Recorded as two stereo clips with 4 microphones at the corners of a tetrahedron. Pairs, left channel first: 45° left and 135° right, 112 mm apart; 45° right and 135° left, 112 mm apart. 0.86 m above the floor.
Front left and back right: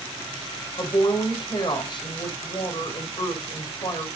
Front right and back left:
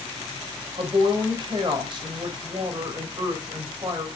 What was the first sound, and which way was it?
A woman speaking, 90° left.